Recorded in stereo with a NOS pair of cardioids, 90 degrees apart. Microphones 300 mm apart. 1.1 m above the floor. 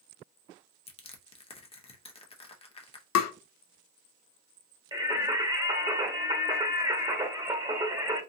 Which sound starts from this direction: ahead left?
Tapping, at 3.1 s.